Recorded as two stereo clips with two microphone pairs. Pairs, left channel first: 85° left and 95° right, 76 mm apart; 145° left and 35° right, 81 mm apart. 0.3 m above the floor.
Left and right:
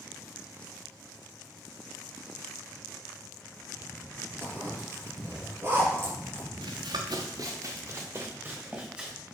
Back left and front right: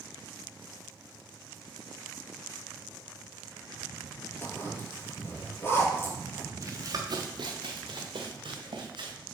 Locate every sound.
4.4 s a zipper: 155° right, 3 m
6.6 s running footsteps: 85° right, 1.8 m; by 9.2 s 15° right, 3.5 m